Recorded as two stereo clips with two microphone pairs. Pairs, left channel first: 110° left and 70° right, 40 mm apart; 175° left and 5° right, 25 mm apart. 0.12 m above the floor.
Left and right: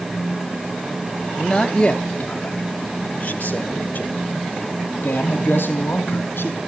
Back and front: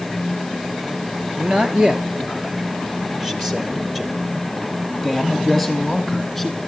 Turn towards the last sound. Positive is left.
turn(degrees=85)